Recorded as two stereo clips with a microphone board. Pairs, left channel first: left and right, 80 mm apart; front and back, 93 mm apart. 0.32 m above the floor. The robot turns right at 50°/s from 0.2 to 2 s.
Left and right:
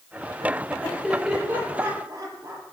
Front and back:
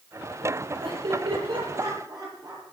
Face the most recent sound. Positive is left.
turn(degrees=-135)